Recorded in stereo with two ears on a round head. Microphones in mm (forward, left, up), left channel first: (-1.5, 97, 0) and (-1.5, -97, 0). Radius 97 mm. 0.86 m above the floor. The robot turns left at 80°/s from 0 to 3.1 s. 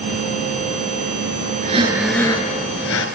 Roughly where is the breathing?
Behind right.